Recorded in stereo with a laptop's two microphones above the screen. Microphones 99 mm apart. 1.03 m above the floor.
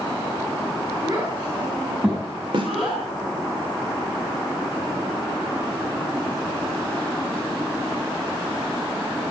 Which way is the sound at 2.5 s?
55° right (ahead or behind).